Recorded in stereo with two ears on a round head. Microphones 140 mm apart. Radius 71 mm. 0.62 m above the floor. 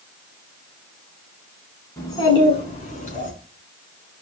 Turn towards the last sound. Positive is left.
turn(degrees=55)  # may be behind; listen again after turning